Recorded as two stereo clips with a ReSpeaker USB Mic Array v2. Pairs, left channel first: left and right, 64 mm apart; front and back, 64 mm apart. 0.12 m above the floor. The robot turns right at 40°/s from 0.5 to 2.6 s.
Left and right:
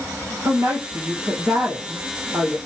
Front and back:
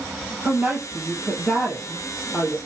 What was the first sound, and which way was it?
A woman speaking, 120° right.